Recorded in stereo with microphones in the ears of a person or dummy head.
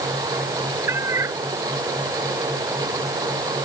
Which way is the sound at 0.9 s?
20° right (ahead or behind).